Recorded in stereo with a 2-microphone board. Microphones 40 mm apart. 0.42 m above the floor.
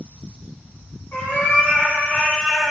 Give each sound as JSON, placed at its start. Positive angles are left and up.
{"t": 1.1, "sound": "a cat meowing", "side_deg": 55, "distance_m": 1.9}